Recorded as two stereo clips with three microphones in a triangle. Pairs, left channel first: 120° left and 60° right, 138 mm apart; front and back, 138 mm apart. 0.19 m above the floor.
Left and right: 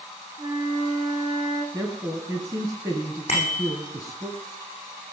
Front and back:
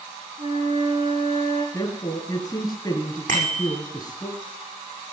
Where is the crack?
No crack in this recording.